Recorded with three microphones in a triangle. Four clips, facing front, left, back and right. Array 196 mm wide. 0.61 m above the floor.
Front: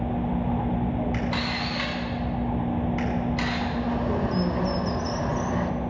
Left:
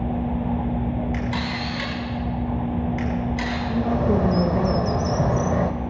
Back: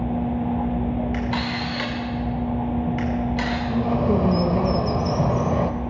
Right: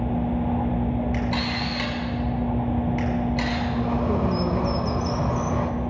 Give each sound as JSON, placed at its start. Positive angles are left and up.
{"t": 1.1, "sound": "a camera shutter", "azimuth_deg": -175, "distance_m": 5.5}
{"t": 3.7, "sound": "a bird", "azimuth_deg": 135, "distance_m": 0.9}